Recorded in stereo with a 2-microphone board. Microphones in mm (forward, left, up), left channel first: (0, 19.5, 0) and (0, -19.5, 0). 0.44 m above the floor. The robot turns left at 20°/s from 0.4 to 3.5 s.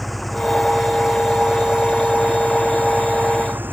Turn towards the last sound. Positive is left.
turn(degrees=-60)